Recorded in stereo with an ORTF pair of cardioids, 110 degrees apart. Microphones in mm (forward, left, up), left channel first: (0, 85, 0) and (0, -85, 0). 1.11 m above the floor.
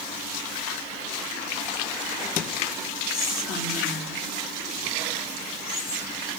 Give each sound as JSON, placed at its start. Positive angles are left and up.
{"t": 3.1, "sound": "whispering", "azimuth_deg": 70, "distance_m": 3.5}